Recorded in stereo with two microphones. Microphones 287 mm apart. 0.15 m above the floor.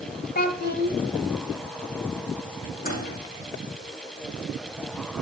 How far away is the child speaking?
About 1.3 m.